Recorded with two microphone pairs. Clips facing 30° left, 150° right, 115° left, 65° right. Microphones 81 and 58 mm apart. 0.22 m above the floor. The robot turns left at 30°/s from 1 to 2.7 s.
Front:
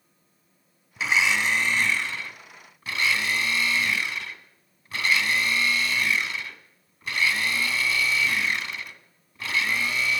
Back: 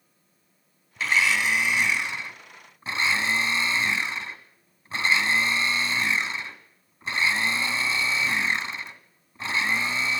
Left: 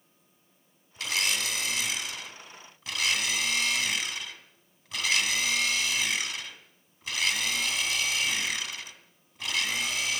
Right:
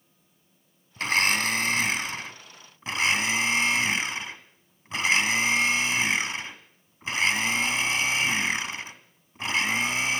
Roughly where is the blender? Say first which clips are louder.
Even, right 7 dB; ahead right.